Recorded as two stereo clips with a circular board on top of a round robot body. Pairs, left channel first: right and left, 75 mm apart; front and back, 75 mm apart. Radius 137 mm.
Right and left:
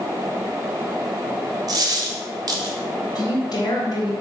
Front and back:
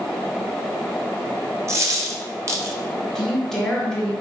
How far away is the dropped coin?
About 1.4 m.